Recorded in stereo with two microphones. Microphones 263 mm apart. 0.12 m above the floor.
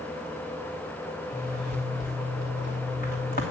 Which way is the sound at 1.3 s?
35° left (ahead or behind).